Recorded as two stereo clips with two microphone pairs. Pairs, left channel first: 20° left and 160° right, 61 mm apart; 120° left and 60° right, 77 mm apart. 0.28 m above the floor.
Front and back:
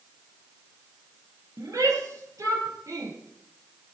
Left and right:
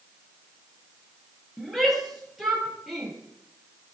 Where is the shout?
150° right, 6.5 m; by 3.1 s 145° right, 7.5 m.